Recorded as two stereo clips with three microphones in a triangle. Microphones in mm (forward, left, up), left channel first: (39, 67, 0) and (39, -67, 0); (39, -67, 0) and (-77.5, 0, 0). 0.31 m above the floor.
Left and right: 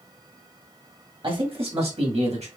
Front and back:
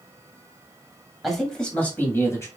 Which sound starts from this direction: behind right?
A man speaking, at 1.2 s.